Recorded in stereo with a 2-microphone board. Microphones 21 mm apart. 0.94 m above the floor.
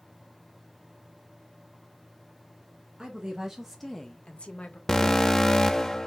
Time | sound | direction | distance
3.0 | a woman speaking | 35° right (ahead or behind) | 1.2 m
4.9 | an alarm | 20° left (ahead or behind) | 0.6 m